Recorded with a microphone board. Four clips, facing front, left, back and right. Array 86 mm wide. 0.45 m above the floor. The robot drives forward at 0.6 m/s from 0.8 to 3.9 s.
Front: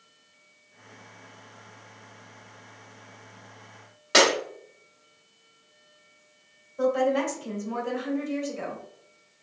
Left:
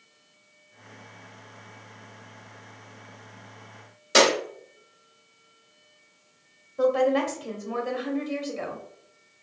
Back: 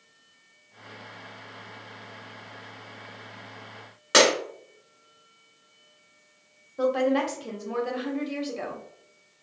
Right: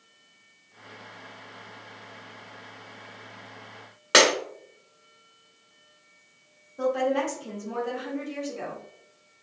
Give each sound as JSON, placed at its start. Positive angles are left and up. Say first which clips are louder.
{"t": 4.1, "sound": "breaking glass", "louder": "even, back 1 dB", "azimuth_deg": -105, "distance_m": 2.0}
{"t": 6.8, "sound": "a woman speaking", "louder": "left 3 dB, even", "azimuth_deg": 160, "distance_m": 1.3}